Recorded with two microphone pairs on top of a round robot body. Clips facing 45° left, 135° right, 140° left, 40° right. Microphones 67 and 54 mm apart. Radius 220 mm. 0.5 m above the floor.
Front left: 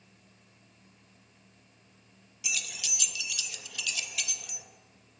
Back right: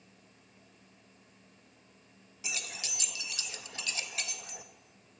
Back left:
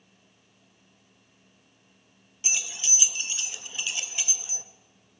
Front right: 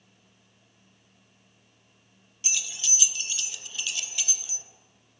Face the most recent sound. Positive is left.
turn(degrees=-175)